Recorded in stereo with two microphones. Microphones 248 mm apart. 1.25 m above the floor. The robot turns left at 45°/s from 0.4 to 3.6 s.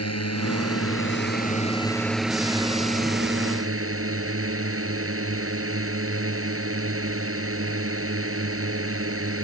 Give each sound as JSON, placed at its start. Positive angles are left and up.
{"t": 0.0, "sound": "a drone", "azimuth_deg": 80}